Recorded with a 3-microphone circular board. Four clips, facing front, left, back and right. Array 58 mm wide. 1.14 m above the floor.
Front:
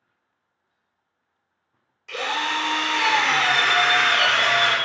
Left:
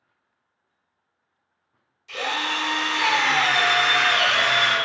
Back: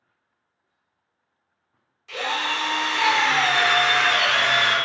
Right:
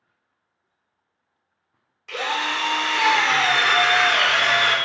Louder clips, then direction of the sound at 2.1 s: Right 2 dB, front 1 dB; 70° right.